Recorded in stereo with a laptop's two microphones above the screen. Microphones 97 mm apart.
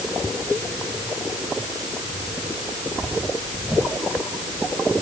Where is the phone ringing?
No phone ringing in this recording.